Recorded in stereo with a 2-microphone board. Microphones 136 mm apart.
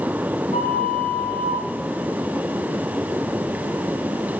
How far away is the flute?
About 5.5 m.